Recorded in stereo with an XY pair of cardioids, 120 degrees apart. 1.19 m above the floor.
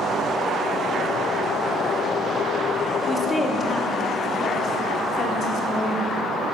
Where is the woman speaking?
20° left, 1.7 m; by 6.1 s 65° left, 3 m.